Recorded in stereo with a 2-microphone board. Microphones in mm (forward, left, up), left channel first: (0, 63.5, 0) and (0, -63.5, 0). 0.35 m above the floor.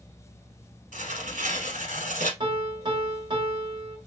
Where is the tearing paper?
80° right, 1.0 m.